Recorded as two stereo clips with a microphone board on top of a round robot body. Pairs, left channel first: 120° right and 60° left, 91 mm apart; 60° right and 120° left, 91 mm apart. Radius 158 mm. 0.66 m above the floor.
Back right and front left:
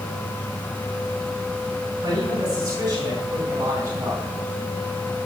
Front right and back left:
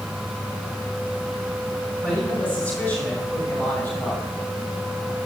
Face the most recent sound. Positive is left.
turn(degrees=0)